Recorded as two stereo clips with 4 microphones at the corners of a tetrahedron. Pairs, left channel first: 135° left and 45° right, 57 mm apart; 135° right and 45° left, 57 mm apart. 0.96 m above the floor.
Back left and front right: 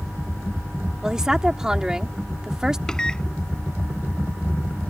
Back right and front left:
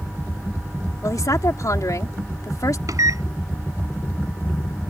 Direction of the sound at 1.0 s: 125° right.